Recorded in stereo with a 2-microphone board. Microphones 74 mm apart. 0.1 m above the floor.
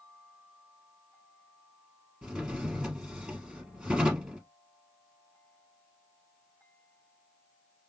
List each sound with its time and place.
2.2 s a drawer: 10° right (ahead or behind), 1.3 m